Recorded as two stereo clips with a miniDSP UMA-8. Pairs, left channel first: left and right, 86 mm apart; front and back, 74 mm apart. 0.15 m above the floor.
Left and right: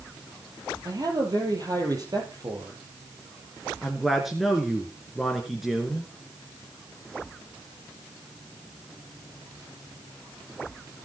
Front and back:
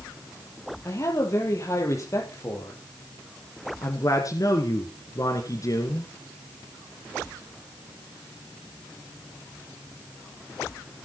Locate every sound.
0.8 s a man speaking: 45° right, 5 m
3.8 s a man speaking: straight ahead, 2.5 m